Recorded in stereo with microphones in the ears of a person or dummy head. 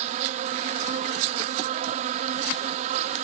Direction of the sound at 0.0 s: 40° right (ahead or behind).